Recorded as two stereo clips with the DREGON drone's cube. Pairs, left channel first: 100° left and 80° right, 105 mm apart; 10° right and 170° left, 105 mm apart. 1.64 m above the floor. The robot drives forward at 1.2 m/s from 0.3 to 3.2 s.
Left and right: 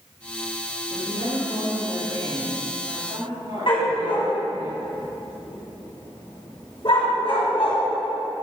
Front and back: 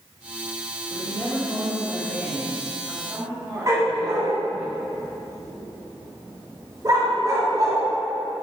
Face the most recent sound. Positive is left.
turn(degrees=120)